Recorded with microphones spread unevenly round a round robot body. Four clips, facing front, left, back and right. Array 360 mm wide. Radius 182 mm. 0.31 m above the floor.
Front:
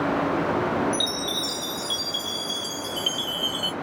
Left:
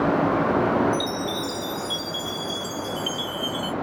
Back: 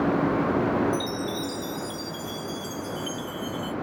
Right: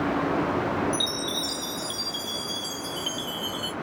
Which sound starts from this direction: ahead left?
A chime, at 0.9 s.